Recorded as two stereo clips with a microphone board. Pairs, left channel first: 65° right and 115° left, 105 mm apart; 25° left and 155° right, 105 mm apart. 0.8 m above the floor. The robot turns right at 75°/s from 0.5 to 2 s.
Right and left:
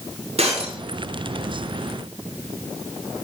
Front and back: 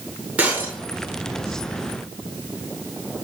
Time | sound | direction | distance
0.4 | breaking glass | 125° left | 6 m